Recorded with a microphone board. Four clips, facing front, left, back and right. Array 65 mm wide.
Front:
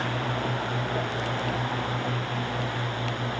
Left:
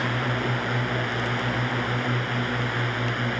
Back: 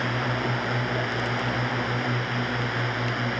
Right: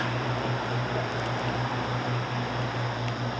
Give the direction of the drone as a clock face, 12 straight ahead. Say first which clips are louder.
Left 3 dB, back 2 dB; 8 o'clock.